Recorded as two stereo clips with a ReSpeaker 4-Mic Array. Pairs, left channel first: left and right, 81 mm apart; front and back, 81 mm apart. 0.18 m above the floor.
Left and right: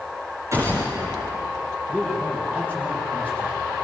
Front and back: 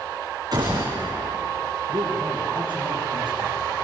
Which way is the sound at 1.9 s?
160° right.